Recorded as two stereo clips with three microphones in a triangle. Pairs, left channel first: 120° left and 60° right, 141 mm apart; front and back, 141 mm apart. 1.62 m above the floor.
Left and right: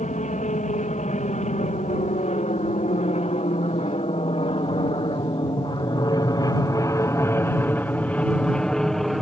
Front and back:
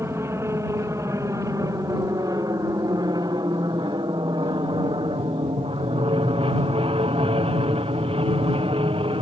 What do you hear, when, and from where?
0.0 s an aircraft: 110° left; by 9.2 s 150° right